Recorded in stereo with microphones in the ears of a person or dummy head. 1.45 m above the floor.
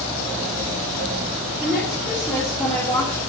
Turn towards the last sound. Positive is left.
turn(degrees=10)  # may be behind; listen again after turning